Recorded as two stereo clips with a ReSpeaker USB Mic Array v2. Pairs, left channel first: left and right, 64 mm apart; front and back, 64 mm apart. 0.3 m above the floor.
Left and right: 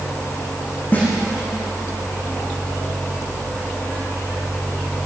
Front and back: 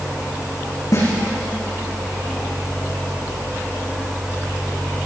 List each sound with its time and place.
0.9 s a snare drum: 30° left, 9 m